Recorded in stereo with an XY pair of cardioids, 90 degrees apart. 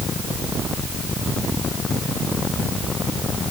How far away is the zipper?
I don't hear a zipper.